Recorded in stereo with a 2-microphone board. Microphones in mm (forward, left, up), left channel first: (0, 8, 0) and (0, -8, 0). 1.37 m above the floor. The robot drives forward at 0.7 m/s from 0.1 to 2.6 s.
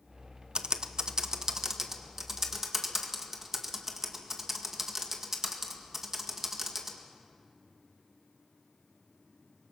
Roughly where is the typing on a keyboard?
Right.